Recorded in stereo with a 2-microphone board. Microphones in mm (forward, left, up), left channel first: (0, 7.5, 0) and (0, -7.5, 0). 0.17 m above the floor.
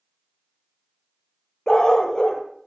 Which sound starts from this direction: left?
A dog barking, at 1.7 s.